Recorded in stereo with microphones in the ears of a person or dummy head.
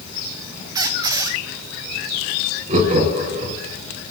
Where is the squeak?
20° right (ahead or behind), 0.6 m.